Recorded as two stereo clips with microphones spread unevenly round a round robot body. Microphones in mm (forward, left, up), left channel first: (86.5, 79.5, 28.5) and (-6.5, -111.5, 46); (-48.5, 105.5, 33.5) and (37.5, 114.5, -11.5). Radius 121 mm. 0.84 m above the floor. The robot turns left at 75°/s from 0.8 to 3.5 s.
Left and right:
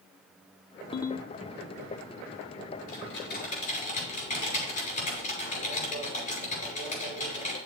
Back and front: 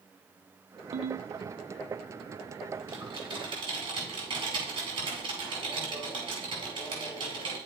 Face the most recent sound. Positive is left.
turn(degrees=10)